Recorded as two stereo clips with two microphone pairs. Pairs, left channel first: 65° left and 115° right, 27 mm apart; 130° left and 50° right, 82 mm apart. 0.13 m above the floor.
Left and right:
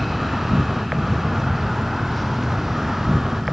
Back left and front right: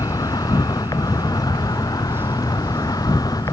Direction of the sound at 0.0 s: 170° left.